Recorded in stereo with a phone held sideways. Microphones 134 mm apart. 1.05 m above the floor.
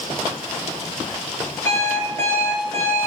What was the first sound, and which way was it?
An alarm clock, 20° left (ahead or behind).